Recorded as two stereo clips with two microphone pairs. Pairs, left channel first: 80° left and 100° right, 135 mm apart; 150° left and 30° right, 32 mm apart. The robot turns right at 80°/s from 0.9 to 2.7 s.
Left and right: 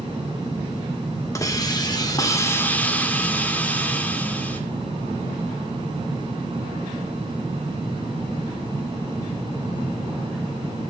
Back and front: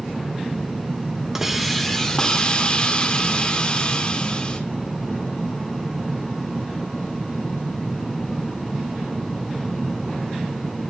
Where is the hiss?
35° left, 1.5 m; by 4.6 s 145° left, 1.5 m.